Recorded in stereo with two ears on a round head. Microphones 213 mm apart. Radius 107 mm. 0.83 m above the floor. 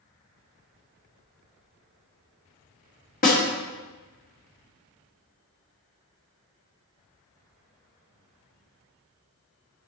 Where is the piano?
I don't hear a piano.